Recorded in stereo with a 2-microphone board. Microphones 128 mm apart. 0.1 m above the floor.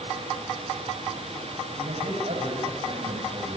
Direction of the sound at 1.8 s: 60° right (ahead or behind).